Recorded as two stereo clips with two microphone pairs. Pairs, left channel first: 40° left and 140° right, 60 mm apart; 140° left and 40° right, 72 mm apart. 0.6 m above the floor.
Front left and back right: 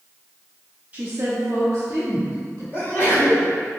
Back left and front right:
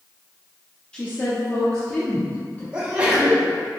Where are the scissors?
I don't hear scissors.